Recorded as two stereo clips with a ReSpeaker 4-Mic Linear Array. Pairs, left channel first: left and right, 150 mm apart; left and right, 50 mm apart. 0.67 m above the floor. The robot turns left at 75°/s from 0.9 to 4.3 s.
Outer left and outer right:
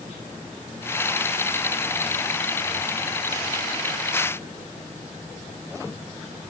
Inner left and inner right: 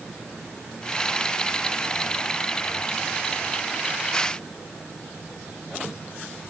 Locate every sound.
Only background noise.